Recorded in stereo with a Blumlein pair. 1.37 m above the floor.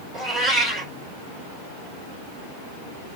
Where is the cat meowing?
5° right, 3 m.